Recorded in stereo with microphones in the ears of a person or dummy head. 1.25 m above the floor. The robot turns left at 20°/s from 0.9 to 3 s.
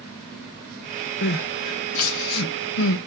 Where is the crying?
60° left (ahead or behind), 0.8 m; by 3.0 s 85° left, 0.8 m.